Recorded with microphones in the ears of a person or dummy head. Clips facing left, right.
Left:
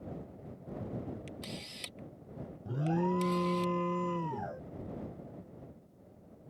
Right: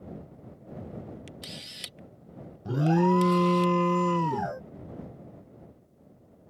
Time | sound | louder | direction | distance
1.3 | a camera shutter | left 1 dB | 10° right (ahead or behind) | ?
2.6 | an alarm | right 9 dB | 70° right (ahead or behind) | ?